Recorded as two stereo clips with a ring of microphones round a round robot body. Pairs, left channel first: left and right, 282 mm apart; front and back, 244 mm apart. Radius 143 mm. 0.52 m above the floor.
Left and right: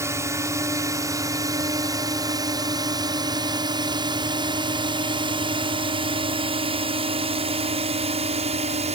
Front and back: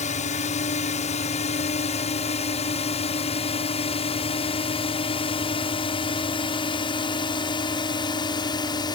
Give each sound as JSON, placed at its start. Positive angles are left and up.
{"t": 0.0, "sound": "a drone", "azimuth_deg": -20}